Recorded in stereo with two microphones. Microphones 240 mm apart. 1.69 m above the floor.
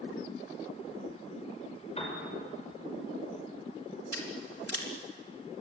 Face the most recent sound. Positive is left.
turn(degrees=75)  # may be behind; listen again after turning